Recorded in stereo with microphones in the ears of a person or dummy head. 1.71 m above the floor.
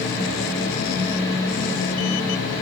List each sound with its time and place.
Only background noise.